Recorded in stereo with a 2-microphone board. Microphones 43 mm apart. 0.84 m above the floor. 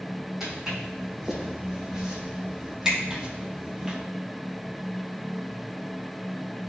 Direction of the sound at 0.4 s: 10° right (ahead or behind).